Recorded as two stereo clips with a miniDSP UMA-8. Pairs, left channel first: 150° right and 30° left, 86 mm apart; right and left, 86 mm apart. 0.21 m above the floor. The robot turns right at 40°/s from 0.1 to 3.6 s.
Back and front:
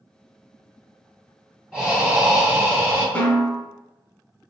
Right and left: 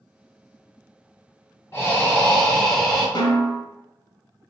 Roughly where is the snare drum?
Right.